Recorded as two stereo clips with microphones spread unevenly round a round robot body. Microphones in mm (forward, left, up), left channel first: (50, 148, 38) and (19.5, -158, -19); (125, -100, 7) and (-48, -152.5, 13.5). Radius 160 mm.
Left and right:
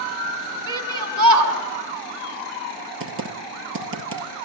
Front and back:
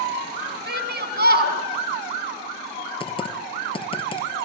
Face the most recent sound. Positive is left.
turn(degrees=-45)